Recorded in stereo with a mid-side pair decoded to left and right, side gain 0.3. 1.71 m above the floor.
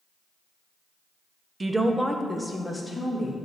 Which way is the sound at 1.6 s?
40° right.